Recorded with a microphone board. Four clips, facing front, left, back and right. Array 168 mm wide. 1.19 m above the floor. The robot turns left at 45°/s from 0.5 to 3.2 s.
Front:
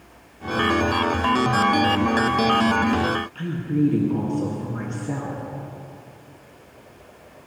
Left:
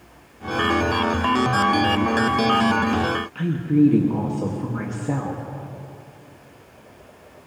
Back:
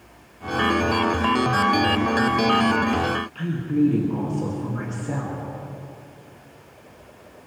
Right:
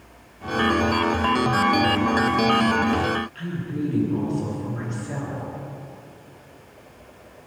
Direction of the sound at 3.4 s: 85° left.